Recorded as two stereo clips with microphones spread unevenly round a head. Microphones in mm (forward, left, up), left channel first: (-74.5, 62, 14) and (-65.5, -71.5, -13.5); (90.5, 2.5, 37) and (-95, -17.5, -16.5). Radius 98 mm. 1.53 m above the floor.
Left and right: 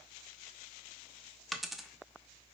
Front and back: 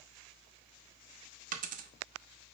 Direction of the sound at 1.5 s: 155° left.